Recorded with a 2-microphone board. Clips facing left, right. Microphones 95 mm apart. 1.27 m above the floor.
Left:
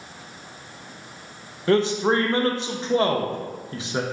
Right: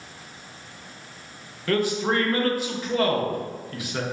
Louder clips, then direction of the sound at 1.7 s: Left 4 dB; 25° left (ahead or behind).